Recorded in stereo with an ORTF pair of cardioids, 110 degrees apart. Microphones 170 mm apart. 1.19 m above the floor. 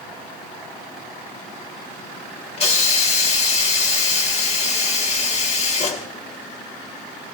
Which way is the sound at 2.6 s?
40° left.